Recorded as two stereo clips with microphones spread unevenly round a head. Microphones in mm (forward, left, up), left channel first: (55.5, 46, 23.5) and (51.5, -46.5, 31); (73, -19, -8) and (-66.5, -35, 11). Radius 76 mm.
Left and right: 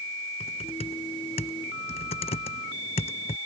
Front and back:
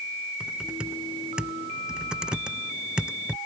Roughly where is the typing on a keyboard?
Left.